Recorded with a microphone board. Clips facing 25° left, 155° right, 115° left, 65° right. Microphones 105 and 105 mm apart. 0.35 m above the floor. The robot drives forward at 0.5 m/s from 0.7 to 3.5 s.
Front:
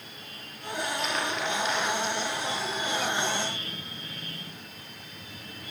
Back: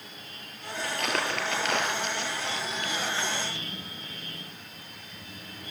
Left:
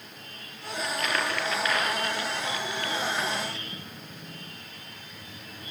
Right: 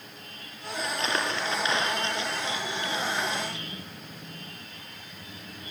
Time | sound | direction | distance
0.8 | crumpling | 130° right | 4 m